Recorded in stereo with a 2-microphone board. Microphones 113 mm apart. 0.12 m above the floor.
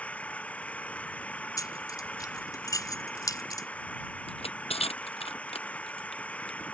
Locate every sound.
0.0 s an engine running: 10° left (ahead or behind)
1.6 s keys jangling: 35° left (ahead or behind)
4.3 s crushing: 60° left (ahead or behind)